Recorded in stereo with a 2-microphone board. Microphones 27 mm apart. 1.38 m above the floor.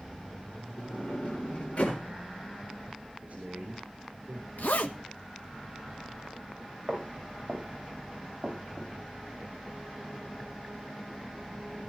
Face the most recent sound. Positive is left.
turn(degrees=-40)  # may be behind; listen again after turning